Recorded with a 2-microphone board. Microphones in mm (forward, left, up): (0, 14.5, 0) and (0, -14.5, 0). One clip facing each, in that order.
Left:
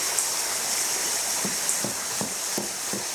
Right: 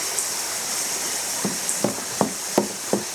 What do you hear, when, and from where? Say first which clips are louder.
1.4 s running footsteps: right 4 dB; 20° right (ahead or behind), 0.6 m; by 3.0 s 55° right (ahead or behind), 1.7 m